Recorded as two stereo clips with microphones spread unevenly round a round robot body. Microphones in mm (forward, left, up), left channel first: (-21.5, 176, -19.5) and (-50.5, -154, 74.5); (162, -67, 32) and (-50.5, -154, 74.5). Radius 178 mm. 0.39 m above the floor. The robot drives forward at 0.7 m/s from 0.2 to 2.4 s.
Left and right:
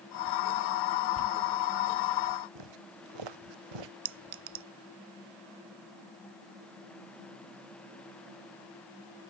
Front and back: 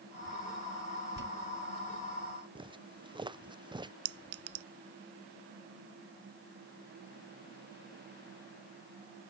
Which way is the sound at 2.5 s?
90° right.